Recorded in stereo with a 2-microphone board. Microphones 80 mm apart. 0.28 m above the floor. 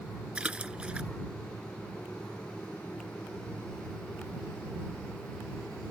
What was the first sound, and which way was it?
A splash, 15° right (ahead or behind).